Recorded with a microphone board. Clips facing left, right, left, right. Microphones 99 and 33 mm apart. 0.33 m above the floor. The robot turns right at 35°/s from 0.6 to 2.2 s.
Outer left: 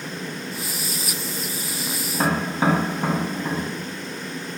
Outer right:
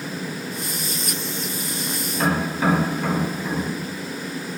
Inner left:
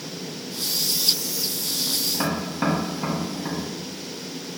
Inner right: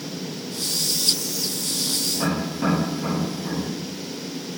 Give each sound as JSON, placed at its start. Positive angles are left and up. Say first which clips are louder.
{"t": 2.1, "sound": "tapping", "louder": "even, inner right 1 dB", "side_deg": 30, "distance_m": 1.4}